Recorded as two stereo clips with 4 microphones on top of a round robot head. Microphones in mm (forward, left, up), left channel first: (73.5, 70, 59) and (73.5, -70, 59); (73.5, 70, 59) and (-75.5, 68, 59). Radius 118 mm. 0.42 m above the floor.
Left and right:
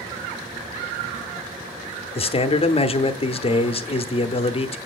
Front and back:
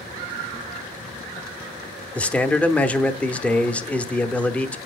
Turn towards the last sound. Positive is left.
turn(degrees=80)